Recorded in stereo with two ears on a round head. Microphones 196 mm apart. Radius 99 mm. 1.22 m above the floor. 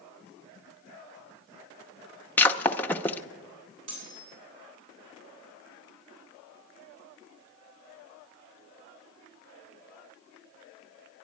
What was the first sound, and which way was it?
Breaking glass, 10° left (ahead or behind).